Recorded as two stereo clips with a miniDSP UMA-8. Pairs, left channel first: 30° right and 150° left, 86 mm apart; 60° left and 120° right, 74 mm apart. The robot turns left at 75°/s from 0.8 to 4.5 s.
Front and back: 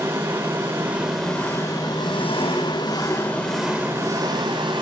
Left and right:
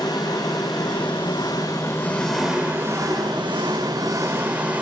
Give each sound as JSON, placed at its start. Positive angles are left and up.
{"t": 0.0, "sound": "an engine running", "azimuth_deg": 90, "distance_m": 8.0}